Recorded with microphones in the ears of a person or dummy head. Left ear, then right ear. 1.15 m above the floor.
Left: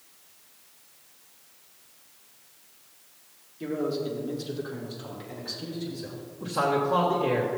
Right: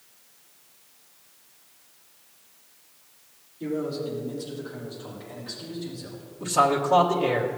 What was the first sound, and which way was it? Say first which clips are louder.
A man speaking: even; 40° left (ahead or behind).